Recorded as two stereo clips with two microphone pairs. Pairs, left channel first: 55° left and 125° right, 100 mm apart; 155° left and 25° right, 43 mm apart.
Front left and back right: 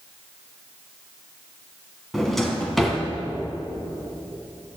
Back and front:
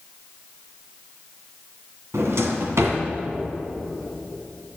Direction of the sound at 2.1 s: 30° right.